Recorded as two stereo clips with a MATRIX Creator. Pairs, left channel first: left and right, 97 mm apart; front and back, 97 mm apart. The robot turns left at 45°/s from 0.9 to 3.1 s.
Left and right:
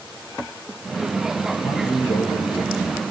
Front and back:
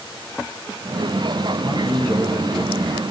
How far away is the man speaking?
About 5 m.